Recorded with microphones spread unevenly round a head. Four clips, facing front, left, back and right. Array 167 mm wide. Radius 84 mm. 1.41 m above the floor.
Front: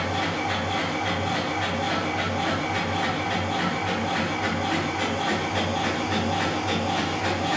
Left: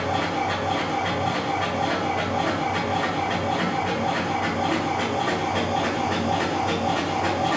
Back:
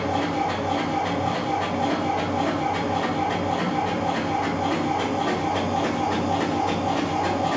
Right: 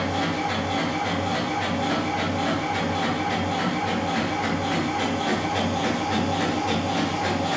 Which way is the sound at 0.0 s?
145° left.